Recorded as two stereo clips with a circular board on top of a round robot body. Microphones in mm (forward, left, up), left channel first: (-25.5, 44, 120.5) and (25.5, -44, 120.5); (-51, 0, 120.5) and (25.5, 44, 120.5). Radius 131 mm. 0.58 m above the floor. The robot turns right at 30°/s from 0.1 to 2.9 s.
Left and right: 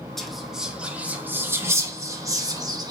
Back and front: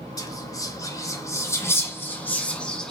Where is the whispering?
155° right, 1.4 m; by 2.9 s 75° right, 1.4 m.